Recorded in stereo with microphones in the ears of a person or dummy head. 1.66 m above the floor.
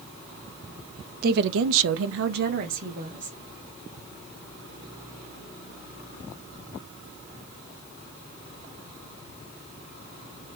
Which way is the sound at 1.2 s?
55° right (ahead or behind).